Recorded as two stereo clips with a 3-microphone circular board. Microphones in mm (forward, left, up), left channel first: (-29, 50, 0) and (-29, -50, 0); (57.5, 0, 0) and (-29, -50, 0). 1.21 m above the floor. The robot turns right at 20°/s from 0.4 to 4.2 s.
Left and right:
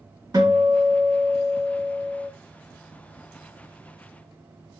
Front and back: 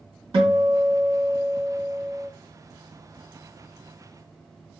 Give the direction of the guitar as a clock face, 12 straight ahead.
4 o'clock.